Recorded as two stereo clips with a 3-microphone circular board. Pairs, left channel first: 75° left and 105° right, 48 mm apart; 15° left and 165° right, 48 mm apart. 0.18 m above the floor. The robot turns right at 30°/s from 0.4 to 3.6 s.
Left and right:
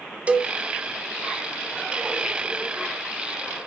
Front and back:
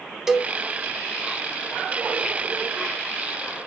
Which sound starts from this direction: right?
A cowbell, at 0.3 s.